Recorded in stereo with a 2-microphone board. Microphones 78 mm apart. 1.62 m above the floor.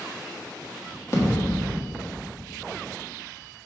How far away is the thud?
About 1.4 m.